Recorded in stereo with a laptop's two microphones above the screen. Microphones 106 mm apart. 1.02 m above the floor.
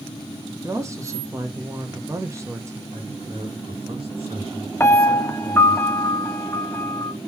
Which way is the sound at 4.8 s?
25° left (ahead or behind).